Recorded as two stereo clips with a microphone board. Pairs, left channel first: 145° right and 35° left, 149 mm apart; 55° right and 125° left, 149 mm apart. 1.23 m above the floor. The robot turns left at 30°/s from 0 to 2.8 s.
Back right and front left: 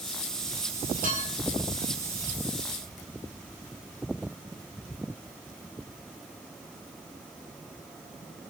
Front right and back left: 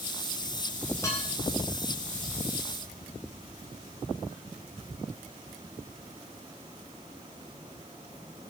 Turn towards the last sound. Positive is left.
turn(degrees=-40)